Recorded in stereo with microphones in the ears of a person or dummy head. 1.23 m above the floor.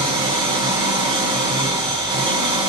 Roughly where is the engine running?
Right.